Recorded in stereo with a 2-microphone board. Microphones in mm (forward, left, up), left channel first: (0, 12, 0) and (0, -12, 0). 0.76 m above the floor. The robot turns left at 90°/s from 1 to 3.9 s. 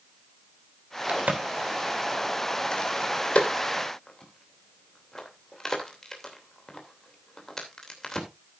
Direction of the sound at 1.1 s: 75° right (ahead or behind).